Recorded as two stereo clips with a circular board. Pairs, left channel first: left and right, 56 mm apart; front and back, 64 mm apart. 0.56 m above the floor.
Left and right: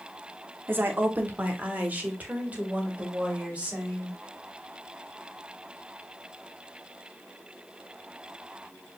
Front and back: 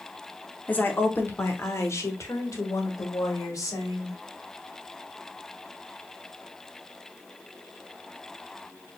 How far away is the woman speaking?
About 1.1 m.